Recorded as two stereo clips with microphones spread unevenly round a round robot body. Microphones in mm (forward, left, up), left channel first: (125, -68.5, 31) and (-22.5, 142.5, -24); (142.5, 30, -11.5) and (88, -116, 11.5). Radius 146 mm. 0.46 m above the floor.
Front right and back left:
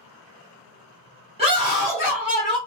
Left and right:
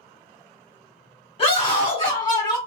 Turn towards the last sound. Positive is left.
turn(degrees=45)